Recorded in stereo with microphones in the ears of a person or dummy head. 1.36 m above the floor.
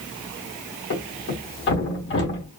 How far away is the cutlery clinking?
No cutlery clinking in this recording.